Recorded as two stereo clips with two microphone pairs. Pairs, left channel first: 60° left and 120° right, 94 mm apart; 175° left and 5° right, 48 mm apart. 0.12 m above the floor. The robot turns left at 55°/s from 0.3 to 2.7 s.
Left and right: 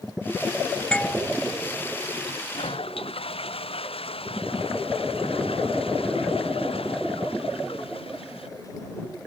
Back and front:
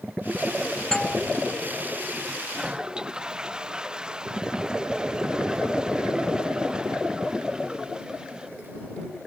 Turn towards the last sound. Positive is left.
turn(degrees=65)